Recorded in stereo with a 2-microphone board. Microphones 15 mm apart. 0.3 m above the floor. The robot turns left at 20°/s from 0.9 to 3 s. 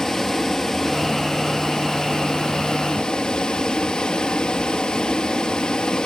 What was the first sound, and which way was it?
Running water, 150° left.